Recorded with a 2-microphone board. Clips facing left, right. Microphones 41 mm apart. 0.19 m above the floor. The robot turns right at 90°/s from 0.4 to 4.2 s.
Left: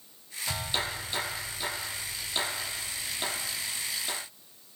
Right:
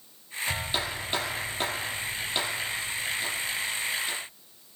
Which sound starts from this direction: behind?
A clap, at 0.5 s.